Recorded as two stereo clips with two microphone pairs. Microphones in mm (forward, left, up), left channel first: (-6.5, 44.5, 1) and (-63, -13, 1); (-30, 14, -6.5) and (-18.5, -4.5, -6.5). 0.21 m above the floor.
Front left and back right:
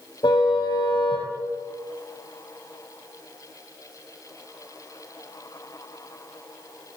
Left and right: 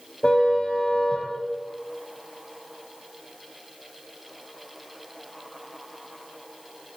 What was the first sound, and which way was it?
A car horn, 70° left.